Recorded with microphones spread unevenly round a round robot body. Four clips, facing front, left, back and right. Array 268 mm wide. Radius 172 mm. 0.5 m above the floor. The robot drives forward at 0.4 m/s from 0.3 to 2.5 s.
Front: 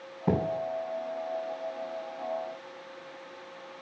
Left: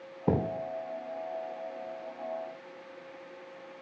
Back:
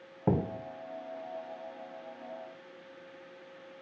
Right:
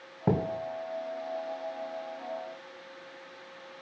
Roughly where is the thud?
Right.